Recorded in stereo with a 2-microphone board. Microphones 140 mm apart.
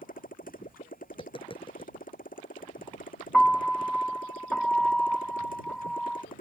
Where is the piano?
5° left (ahead or behind).